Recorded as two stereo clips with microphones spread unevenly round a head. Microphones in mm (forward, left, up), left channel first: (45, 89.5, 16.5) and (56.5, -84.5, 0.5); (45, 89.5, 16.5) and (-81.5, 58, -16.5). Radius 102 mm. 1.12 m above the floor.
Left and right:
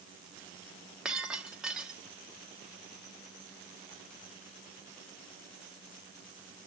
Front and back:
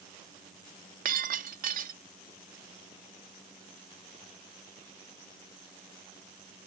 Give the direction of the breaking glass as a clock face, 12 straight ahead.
6 o'clock.